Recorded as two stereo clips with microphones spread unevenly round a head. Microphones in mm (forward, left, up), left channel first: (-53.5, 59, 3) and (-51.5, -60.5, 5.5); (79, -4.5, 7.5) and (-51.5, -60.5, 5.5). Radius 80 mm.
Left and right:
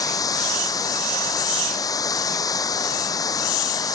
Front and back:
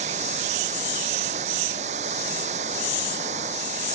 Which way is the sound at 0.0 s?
150° left.